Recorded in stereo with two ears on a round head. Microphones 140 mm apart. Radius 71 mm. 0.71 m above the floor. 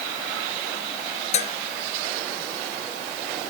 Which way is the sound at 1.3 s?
45° left (ahead or behind).